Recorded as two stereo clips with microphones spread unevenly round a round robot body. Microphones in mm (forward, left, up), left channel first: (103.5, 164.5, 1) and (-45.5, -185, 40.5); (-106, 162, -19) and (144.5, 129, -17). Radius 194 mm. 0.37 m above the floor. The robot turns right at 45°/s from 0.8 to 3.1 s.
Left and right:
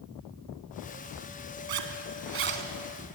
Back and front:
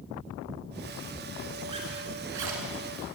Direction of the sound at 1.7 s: 85° right.